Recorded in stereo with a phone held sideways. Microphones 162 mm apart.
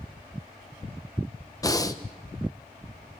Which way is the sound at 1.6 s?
20° left (ahead or behind).